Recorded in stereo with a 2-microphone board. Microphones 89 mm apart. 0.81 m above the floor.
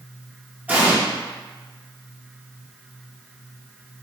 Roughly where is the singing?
No singing in this recording.